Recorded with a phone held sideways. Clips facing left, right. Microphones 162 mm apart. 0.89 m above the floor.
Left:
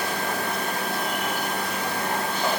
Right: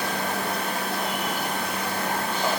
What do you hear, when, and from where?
Only background noise.